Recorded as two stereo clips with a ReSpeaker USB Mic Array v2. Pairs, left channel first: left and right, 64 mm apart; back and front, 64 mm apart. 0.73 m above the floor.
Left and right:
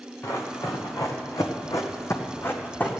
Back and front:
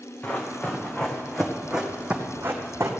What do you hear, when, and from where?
0.2 s running footsteps: 115° left, 2.5 m; by 2.9 s 30° left, 1.7 m